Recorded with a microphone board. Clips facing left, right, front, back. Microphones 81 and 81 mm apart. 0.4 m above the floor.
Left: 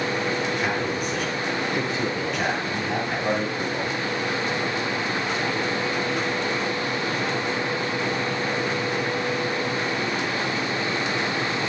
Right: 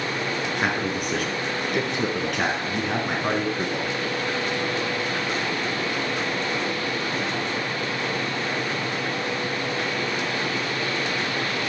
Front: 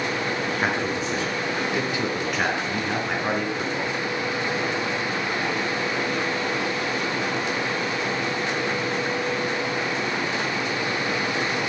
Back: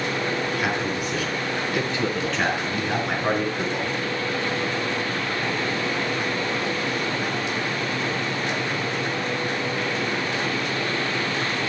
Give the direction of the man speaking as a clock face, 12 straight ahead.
2 o'clock.